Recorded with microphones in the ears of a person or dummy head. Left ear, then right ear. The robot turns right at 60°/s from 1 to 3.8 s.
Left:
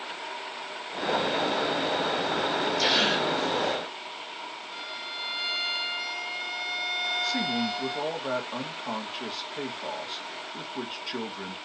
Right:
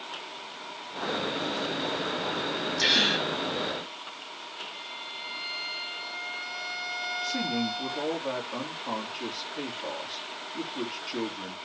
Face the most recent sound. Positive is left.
turn(degrees=55)  # may be behind; listen again after turning